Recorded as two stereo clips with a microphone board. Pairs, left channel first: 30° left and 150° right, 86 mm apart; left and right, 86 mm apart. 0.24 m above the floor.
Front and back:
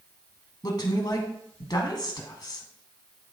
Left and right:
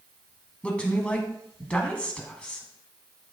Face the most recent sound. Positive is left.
turn(degrees=15)